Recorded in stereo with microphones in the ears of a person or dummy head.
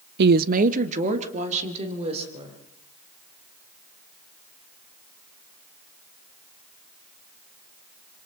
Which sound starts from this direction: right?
A woman speaking, at 0.2 s.